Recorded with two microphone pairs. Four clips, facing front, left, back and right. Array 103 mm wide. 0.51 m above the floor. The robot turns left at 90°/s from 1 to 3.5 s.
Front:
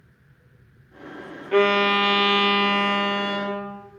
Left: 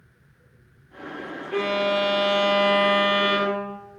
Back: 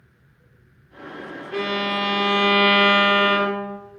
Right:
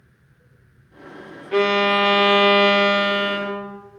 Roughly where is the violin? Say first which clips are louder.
Right 5 dB, front 7 dB; ahead right.